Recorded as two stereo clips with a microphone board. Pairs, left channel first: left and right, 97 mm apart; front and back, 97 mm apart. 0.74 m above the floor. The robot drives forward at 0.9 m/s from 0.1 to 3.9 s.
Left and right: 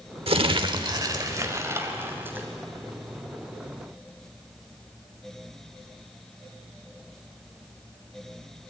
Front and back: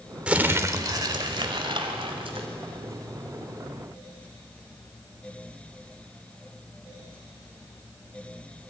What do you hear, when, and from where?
0.3 s crumpling: 105° right, 0.9 m; by 2.5 s 160° right, 2.5 m